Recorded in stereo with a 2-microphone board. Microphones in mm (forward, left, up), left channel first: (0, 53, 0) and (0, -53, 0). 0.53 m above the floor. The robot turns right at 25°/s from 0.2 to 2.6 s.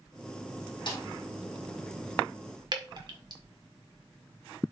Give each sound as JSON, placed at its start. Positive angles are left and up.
{"t": 0.9, "sound": "a snare drum", "side_deg": 45, "distance_m": 3.5}
{"t": 2.7, "sound": "dripping", "side_deg": -45, "distance_m": 1.7}